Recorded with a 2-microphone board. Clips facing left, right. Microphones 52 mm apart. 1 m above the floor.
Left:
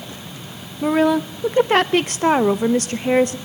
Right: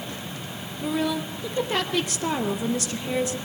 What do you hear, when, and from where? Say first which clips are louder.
0.8 s a woman speaking: left 9 dB; 55° left (ahead or behind), 0.6 m